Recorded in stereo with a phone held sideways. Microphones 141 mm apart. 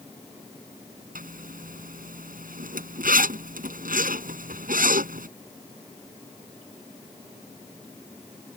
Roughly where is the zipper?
Right.